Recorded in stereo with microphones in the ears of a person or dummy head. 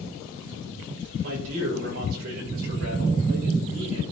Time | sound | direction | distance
1.2 | a man speaking | 70° right (ahead or behind) | 6 m